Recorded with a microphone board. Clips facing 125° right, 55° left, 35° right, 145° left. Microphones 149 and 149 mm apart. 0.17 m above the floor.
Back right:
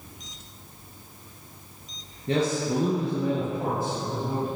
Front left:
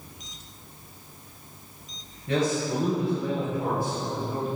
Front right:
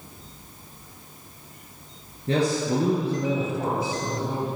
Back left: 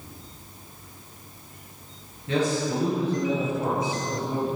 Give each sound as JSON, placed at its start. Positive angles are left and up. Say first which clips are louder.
{"t": 2.3, "sound": "a man speaking", "louder": "back right 1 dB, front right 2 dB", "azimuth_deg": -75, "distance_m": 2.5}